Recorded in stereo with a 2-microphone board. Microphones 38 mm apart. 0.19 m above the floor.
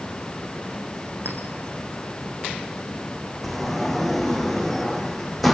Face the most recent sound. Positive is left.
turn(degrees=5)  # may be behind; listen again after turning